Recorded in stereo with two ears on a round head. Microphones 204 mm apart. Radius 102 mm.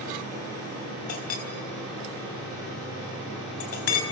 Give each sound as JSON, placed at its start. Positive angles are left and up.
{"t": 1.1, "sound": "a clink", "side_deg": 75, "distance_m": 4.0}